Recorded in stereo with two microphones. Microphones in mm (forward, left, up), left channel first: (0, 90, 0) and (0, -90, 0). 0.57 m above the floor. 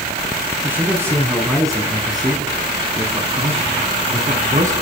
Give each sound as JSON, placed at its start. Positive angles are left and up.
{"t": 0.6, "sound": "a man speaking", "side_deg": -10, "distance_m": 5.5}